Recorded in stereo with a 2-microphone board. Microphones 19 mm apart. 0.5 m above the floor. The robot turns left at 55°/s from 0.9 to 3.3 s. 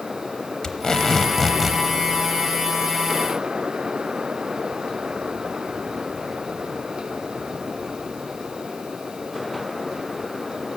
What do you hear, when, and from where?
0.6 s tape being pulled: 35° left, 0.8 m; by 1.8 s 15° right, 0.8 m